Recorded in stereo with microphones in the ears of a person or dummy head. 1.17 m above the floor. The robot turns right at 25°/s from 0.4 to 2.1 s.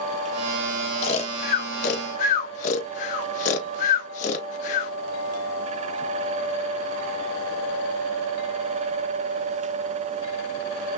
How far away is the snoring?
About 0.6 m.